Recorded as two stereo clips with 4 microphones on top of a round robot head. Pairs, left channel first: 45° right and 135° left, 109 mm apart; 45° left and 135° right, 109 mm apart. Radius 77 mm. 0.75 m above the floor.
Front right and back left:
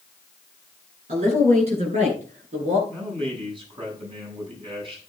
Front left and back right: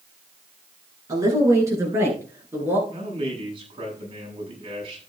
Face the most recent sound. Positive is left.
turn(degrees=180)